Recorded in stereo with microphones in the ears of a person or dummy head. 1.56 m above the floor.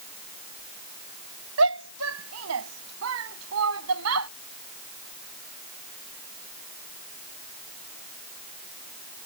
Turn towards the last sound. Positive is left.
turn(degrees=-85)